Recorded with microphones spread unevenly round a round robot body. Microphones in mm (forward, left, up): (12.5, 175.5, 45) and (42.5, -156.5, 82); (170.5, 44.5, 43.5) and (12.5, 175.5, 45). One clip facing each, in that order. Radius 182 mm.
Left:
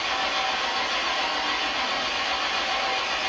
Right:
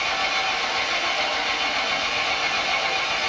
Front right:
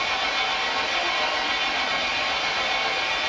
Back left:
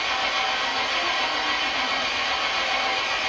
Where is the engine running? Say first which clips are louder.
Right 1 dB, even; 130° right, 0.9 m.